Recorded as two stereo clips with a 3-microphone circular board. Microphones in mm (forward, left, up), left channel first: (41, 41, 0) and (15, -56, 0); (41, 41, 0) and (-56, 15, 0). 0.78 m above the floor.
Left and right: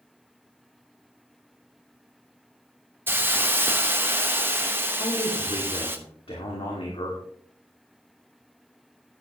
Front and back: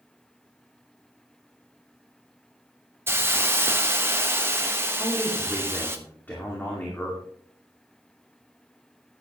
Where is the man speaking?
85° left, 2 m.